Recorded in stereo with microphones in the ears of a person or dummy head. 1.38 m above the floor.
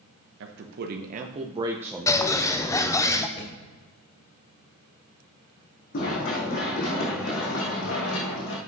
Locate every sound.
0.4 s a man speaking: 65° right (ahead or behind), 1.1 m; by 3.0 s 35° left (ahead or behind), 1.1 m
2.1 s a bird: 15° left (ahead or behind), 0.6 m
3.4 s a thud: 35° left (ahead or behind), 2.5 m
5.9 s running footsteps: 50° left (ahead or behind), 4 m; by 8.6 s 70° left (ahead or behind), 4 m